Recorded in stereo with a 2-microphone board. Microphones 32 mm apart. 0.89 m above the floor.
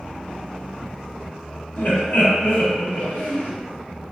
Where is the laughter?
60° left (ahead or behind), 0.7 m.